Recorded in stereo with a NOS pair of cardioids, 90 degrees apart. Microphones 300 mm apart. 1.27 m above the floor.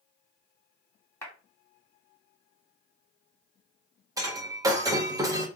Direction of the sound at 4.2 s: 10° right.